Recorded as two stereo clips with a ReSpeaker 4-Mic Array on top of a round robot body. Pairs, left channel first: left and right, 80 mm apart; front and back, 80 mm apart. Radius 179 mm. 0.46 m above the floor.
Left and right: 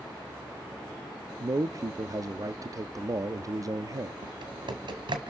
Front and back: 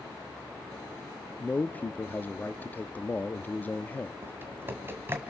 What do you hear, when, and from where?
1.4 s a man speaking: 60° right, 0.9 m
4.2 s typing on a keyboard: 115° right, 1.6 m